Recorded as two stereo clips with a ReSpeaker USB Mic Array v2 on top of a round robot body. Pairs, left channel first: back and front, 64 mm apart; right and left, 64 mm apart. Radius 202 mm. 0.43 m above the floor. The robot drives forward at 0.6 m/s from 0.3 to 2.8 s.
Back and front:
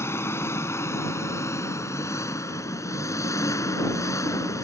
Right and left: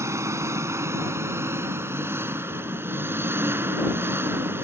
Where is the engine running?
135° left; by 4.6 s 145° left.